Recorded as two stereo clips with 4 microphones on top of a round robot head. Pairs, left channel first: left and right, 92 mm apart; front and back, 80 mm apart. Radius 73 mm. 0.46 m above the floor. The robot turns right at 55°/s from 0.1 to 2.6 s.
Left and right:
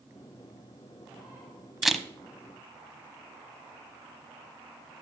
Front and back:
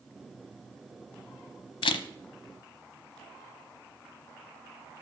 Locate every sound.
1.8 s a camera shutter: 5° right, 0.9 m; by 2.0 s 5° left, 0.9 m